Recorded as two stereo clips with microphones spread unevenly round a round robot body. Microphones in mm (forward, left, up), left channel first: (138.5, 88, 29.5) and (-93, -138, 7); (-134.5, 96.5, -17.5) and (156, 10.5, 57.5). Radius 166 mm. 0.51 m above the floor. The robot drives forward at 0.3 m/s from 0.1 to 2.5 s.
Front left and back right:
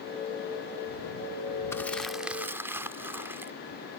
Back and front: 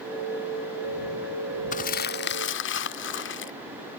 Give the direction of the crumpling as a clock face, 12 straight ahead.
8 o'clock.